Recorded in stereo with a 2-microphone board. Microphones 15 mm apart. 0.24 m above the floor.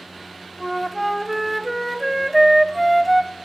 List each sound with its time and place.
0.6 s a flute: centre (ahead or behind), 0.6 m